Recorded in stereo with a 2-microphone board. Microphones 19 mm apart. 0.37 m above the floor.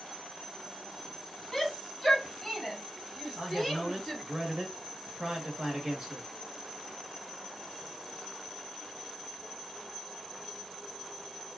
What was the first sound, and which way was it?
A shout, 10° left (ahead or behind).